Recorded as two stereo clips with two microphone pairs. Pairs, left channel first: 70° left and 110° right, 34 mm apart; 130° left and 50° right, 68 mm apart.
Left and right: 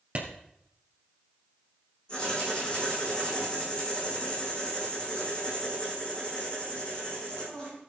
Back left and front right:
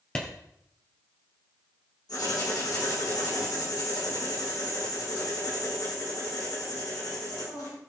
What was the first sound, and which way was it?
A clap, 155° right.